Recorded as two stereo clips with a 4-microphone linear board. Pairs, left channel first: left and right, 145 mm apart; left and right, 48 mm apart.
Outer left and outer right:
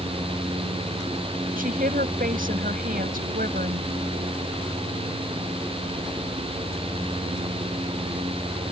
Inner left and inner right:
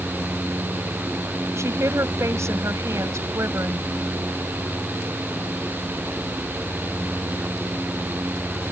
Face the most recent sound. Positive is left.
turn(degrees=-80)